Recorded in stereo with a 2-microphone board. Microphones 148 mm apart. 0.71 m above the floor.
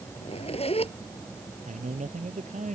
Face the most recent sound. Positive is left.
turn(degrees=-50)  # may be behind; listen again after turning